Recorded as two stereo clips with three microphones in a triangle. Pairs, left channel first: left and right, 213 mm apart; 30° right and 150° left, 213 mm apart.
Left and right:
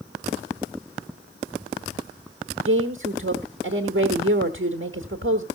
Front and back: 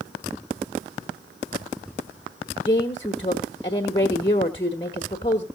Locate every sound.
2.6 s a woman speaking: 95° right, 1.2 m